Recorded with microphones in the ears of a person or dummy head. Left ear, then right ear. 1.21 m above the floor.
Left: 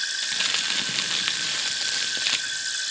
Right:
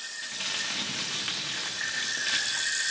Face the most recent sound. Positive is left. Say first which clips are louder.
# left 5 dB
turn(degrees=40)  # may be behind; listen again after turning